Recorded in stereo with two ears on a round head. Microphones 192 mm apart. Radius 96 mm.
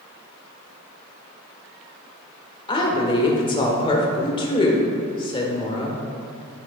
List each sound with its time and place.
2.7 s a woman speaking: 25° left (ahead or behind), 1.4 m